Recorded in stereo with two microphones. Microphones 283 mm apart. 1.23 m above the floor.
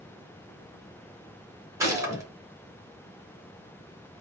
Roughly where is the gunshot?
Centre.